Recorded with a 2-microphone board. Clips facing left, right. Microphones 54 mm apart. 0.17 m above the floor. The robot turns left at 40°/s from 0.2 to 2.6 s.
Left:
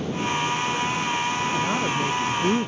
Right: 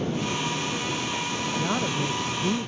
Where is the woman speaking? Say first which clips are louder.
Left 3 dB; 175° right; by 2.7 s 145° left.